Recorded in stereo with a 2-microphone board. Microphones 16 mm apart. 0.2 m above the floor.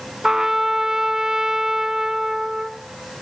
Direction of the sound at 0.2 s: 35° right (ahead or behind).